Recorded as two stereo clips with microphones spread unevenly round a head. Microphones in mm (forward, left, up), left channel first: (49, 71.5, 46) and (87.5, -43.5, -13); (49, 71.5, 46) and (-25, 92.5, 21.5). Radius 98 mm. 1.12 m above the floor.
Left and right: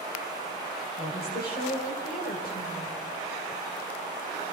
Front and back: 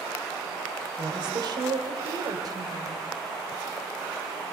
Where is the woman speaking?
140° left, 6 m; by 3.0 s 125° left, 5 m.